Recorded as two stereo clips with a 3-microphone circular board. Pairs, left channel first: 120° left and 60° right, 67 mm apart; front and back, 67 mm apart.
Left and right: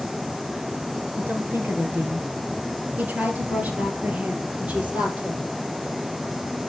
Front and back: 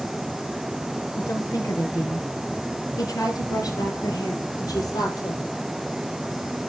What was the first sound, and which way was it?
A woman speaking, 5° right.